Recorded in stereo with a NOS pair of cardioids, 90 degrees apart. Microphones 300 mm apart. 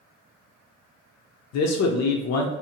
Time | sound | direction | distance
1.5 | a man speaking | 60° left | 0.5 m